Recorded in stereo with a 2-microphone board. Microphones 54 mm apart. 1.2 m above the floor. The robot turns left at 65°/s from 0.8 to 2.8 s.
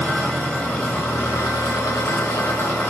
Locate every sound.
0.0 s an engine running: 160° left, 3 m; by 2.9 s 30° left, 3 m